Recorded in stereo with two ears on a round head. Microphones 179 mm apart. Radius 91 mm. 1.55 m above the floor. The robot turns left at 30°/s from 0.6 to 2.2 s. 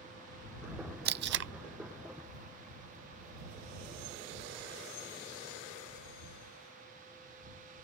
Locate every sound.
1.1 s tape being pulled: 50° right (ahead or behind); by 1.5 s 65° right (ahead or behind)